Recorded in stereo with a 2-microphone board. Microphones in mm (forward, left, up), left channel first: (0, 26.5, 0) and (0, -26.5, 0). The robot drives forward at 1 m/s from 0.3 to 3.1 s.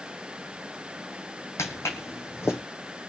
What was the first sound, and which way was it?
Footsteps, 65° left (ahead or behind).